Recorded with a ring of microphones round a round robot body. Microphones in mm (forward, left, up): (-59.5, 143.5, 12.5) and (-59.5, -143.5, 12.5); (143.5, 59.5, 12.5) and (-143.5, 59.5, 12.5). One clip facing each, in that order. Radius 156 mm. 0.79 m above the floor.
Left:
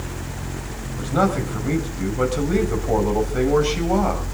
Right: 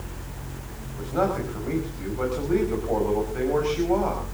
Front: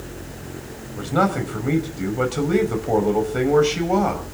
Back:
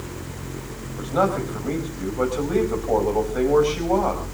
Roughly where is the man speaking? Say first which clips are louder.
Left 4 dB, front 1 dB; ahead left.